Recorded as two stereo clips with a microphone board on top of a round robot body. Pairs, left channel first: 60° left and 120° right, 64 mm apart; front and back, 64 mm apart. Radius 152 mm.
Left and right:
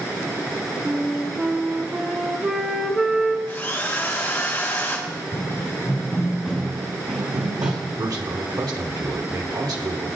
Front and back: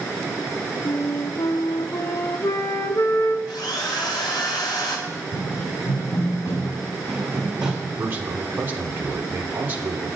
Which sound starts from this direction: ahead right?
A flute, at 0.8 s.